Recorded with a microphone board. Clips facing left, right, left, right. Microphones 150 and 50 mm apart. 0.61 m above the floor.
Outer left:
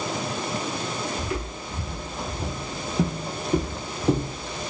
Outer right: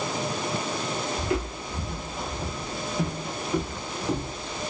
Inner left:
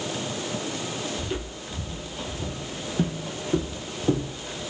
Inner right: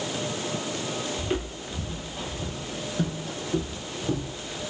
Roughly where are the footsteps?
Right.